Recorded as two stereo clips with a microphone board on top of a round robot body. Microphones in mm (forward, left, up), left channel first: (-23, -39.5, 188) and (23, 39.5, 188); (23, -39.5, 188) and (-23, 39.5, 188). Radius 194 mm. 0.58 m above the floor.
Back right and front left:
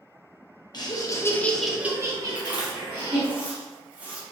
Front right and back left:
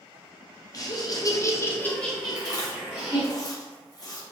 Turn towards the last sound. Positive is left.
turn(degrees=-15)